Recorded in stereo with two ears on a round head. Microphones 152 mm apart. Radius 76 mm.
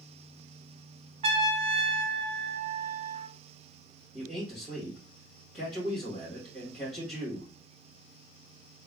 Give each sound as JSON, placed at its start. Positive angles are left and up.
{"t": 1.2, "sound": "a trumpet", "side_deg": -35, "distance_m": 0.5}
{"t": 4.1, "sound": "a man speaking", "side_deg": 5, "distance_m": 1.9}